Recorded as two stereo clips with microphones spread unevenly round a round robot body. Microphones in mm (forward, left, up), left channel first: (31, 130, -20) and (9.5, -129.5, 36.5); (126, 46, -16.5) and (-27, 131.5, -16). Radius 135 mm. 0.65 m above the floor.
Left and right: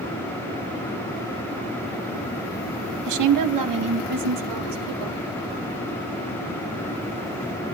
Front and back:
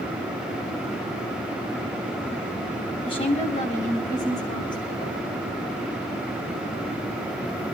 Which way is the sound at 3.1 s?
95° right.